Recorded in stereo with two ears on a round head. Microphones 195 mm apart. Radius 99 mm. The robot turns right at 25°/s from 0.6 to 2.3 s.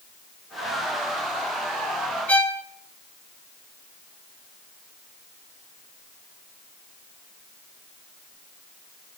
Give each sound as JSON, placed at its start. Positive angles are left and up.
{"t": 2.3, "sound": "a violin", "side_deg": 5, "distance_m": 1.5}